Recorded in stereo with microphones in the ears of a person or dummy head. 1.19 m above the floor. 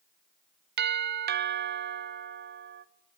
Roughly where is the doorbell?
Right.